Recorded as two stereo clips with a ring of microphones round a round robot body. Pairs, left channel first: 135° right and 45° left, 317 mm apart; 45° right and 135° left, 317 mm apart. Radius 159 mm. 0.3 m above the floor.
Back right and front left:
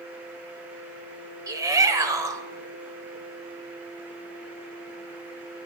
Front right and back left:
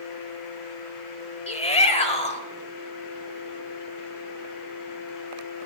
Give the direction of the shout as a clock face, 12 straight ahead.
1 o'clock.